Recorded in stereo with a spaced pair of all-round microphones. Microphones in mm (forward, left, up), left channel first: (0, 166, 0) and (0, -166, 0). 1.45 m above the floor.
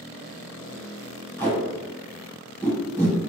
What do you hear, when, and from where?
1.4 s tape being pulled: 5° left (ahead or behind), 1.3 m